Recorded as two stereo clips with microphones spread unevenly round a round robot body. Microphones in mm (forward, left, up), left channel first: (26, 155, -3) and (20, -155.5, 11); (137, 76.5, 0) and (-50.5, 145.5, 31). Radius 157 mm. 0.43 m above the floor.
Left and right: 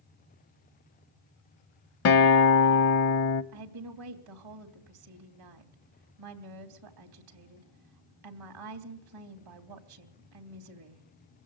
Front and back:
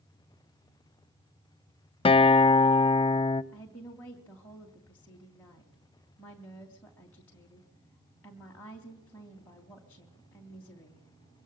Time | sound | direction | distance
2.0 | a guitar | 45° left | 0.7 m
3.5 | a woman speaking | 100° right | 3 m